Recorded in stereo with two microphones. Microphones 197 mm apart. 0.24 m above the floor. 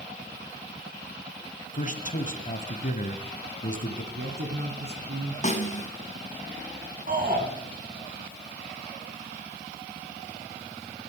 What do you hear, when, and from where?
1.7 s a man speaking: 40° left (ahead or behind), 1.4 m
4.1 s a man speaking: 60° right (ahead or behind), 2 m
5.4 s a snare drum: 35° left (ahead or behind), 2 m
7.1 s a shout: 45° right (ahead or behind), 3 m